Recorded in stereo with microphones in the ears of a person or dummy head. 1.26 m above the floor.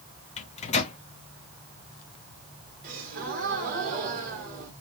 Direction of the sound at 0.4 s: 35° left (ahead or behind).